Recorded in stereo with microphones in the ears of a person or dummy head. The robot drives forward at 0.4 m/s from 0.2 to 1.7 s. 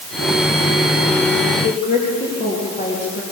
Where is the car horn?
I don't hear a car horn.